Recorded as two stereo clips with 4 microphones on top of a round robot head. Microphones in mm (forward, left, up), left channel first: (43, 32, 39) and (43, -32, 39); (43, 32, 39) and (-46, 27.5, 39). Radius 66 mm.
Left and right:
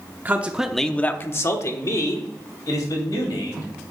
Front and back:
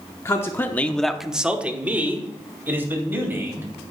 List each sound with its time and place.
0.2 s a man speaking: 45° right, 1.0 m; by 3.7 s 120° left, 3.5 m